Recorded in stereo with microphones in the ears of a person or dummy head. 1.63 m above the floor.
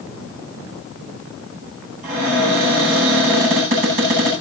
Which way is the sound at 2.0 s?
45° right (ahead or behind).